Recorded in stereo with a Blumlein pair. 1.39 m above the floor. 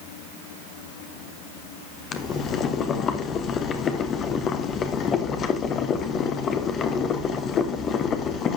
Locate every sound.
2.1 s boiling: 25° left, 1.2 m